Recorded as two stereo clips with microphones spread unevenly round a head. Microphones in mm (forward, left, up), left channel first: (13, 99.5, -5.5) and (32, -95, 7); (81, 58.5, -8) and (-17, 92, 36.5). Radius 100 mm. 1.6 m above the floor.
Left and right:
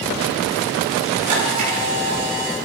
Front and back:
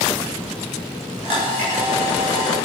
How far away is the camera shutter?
About 5.5 m.